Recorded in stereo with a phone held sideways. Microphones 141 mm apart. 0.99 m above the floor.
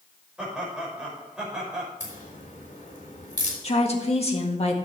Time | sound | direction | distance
0.4 | laughter | 5° right (ahead or behind) | 5.5 m
2.0 | a crack | 55° left (ahead or behind) | 3 m
3.6 | a woman speaking | 45° left (ahead or behind) | 1.7 m